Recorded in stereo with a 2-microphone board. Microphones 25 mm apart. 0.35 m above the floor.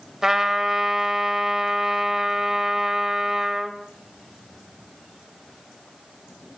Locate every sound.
0.2 s a trumpet: 20° right (ahead or behind), 1.3 m